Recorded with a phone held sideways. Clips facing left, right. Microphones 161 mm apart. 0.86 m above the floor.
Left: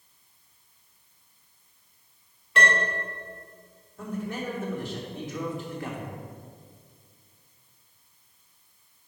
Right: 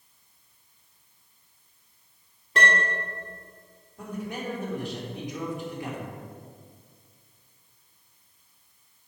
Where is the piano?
40° right (ahead or behind), 2.5 m.